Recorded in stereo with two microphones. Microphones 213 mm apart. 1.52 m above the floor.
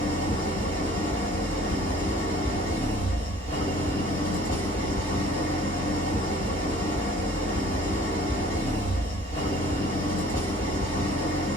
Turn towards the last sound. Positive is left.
turn(degrees=45)  # may be behind; listen again after turning